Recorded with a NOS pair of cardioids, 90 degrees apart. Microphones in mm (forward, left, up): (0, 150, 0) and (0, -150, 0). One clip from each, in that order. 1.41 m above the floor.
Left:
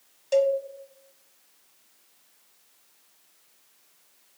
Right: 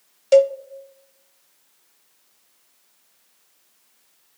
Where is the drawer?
I don't hear a drawer.